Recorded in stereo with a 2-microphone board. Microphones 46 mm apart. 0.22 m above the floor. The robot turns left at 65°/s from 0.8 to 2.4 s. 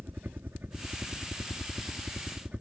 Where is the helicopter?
40° right (ahead or behind); by 2.6 s 30° right (ahead or behind).